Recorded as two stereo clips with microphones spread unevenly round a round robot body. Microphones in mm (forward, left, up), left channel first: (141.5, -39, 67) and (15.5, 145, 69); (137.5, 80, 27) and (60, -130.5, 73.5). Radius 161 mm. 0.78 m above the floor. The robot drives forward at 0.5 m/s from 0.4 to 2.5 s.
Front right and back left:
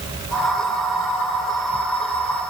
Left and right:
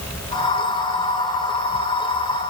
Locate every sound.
Only background noise.